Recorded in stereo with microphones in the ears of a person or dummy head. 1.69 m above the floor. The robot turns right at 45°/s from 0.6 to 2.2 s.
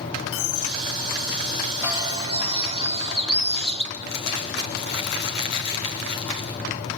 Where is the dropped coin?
75° left (ahead or behind), 4.5 m; by 2.4 s 25° left (ahead or behind), 4.5 m.